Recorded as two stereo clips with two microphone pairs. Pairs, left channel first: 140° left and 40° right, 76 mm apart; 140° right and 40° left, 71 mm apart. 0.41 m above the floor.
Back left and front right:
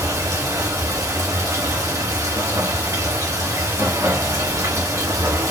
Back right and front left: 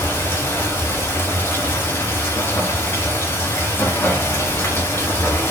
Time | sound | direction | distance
0.0 | running water | 80° right | 1.7 m